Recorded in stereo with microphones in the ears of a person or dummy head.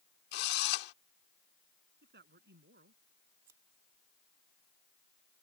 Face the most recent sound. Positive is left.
turn(degrees=-15)  # may be behind; listen again after turning